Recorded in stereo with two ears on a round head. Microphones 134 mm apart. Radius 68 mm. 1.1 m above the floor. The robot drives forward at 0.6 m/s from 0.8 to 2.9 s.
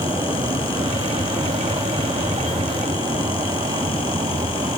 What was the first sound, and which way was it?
A vehicle, 20° right (ahead or behind).